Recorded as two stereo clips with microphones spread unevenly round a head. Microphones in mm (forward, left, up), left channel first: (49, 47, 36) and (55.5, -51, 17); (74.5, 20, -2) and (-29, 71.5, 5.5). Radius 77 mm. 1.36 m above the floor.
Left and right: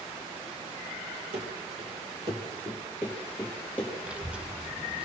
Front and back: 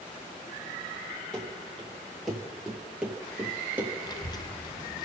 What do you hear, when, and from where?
1.3 s running footsteps: 115° right, 2.0 m; by 3.9 s 105° left, 1.4 m
4.0 s a child speaking: straight ahead, 0.6 m